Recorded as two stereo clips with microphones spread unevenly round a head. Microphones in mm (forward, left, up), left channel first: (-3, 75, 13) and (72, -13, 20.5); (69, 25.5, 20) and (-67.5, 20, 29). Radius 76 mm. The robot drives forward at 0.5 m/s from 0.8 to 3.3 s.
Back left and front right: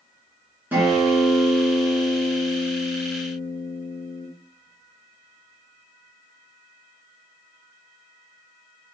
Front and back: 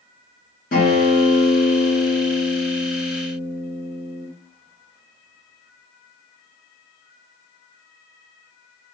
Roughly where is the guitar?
Ahead.